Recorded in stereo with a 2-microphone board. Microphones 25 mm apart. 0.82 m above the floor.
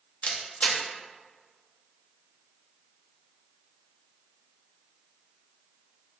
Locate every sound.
0.2 s a camera shutter: 75° left (ahead or behind), 0.5 m